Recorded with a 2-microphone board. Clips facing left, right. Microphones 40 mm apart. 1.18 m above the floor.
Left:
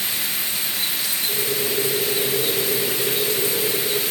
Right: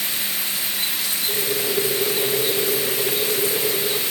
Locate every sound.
1.3 s boiling: 60° right (ahead or behind), 5.5 m